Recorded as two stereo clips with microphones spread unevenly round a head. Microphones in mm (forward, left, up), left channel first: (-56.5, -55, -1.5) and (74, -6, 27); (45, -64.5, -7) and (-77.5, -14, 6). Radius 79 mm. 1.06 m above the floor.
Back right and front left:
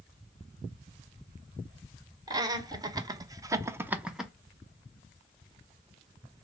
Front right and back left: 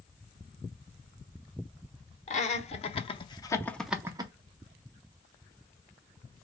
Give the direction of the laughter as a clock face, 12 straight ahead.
2 o'clock.